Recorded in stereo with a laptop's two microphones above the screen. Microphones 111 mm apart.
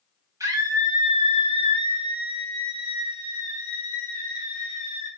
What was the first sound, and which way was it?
A scream, 30° right (ahead or behind).